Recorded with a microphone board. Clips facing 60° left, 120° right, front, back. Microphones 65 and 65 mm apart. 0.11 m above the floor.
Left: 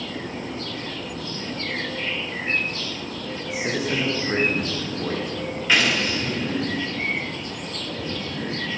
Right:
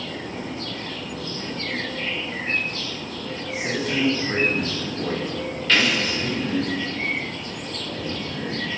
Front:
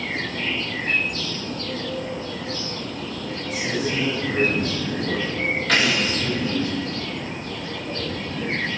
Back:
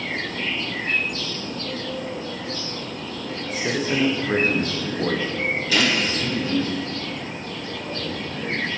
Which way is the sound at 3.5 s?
130° left.